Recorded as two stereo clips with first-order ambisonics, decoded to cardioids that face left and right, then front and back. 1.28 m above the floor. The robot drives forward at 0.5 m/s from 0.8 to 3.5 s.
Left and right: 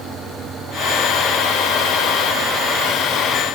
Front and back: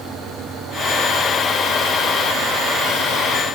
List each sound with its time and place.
Only background noise.